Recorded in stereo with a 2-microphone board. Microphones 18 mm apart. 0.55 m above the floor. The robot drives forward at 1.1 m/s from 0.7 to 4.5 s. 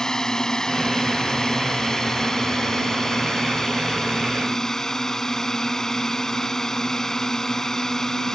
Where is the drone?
35° left (ahead or behind); by 8.4 s 30° left (ahead or behind).